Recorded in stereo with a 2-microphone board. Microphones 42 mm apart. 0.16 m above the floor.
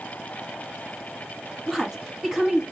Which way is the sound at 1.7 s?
10° right (ahead or behind).